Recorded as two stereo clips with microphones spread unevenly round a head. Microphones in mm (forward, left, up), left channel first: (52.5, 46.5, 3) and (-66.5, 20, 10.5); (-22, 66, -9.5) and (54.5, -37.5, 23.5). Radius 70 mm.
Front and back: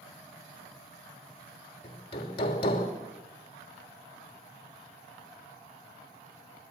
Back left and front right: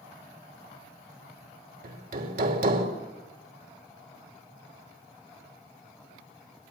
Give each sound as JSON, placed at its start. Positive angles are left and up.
{"t": 1.8, "sound": "hammering", "azimuth_deg": -45, "distance_m": 3.0}